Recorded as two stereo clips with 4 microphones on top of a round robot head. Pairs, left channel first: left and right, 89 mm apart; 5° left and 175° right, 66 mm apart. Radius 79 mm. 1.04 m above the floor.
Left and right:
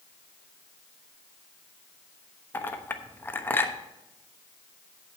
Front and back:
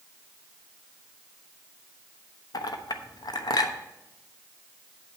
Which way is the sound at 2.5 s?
25° left.